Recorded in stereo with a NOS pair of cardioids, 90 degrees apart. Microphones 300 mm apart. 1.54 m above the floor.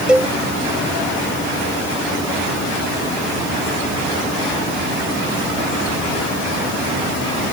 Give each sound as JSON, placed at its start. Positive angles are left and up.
{"t": 0.1, "sound": "a cowbell", "azimuth_deg": -5}